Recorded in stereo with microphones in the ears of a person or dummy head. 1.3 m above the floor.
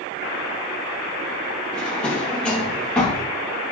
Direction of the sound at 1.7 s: 5° left (ahead or behind).